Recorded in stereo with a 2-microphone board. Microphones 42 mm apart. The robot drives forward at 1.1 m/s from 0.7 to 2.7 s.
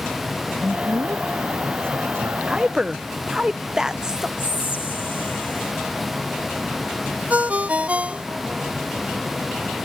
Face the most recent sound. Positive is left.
turn(degrees=-35)  # may be behind; listen again after turning